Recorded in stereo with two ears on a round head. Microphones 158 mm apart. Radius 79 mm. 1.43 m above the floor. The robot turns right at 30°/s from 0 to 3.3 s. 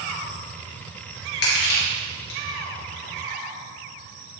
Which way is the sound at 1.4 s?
60° left (ahead or behind).